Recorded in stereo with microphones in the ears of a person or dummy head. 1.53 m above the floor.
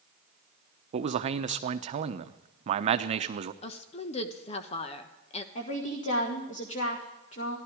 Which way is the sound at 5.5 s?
45° left (ahead or behind).